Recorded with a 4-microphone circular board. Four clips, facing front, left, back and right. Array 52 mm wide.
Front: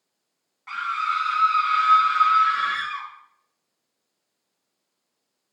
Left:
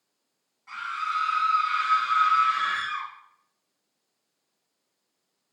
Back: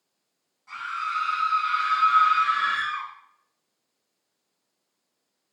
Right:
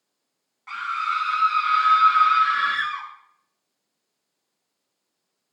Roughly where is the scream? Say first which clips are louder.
Right 4 dB, front 5 dB; ahead right.